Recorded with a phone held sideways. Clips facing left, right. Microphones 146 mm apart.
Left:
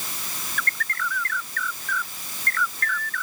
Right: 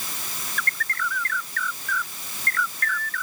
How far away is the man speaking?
I don't hear a man speaking.